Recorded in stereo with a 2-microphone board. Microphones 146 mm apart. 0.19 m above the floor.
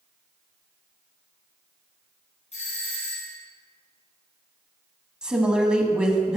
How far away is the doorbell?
About 2 m.